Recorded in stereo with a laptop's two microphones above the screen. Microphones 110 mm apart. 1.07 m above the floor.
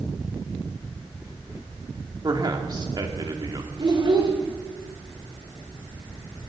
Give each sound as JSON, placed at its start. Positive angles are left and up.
{"t": 2.2, "sound": "a man speaking", "side_deg": -40, "distance_m": 2.5}
{"t": 3.8, "sound": "a child speaking", "side_deg": -45, "distance_m": 2.5}